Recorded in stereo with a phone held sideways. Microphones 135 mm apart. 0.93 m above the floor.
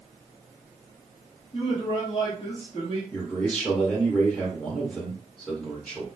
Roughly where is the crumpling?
I don't hear crumpling.